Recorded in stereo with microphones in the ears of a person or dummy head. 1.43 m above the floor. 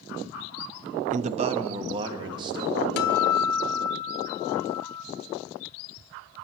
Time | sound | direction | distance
1.1 | a man speaking | 50° right (ahead or behind) | 0.5 m
3.0 | a guitar | 60° left (ahead or behind) | 0.8 m